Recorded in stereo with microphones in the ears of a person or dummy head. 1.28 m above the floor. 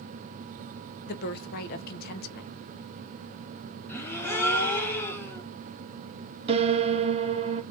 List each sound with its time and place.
1.1 s a woman speaking: 50° left (ahead or behind), 1.3 m
3.9 s a gasp: 15° left (ahead or behind), 1.5 m
6.5 s a piano: 35° right (ahead or behind), 1.0 m